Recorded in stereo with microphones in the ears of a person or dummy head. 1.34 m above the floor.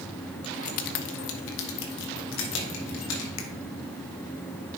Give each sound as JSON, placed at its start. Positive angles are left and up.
{"t": 0.4, "sound": "keys jangling", "side_deg": 30, "distance_m": 0.5}
{"t": 3.4, "sound": "a finger snap", "side_deg": 80, "distance_m": 0.9}